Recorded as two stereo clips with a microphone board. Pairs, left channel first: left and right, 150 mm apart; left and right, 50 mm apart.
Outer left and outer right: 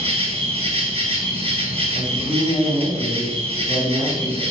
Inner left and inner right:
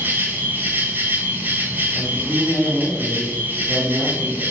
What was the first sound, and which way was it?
An insect, 45° right (ahead or behind).